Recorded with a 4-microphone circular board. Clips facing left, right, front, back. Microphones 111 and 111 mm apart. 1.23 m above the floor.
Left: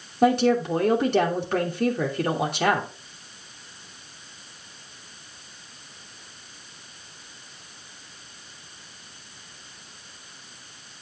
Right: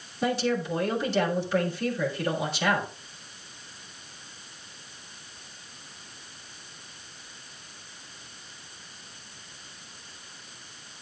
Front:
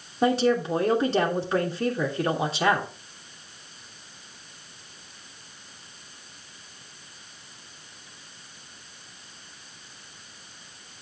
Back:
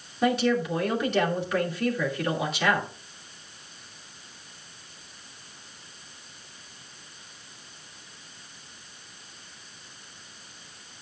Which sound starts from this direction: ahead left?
A woman speaking, at 0.2 s.